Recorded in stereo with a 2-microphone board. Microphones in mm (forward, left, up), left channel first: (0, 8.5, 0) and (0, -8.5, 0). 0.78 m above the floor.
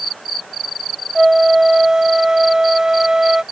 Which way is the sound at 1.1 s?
40° right (ahead or behind).